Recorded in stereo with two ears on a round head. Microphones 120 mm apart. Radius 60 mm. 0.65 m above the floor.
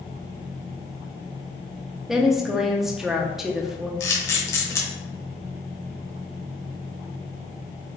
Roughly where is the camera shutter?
Left.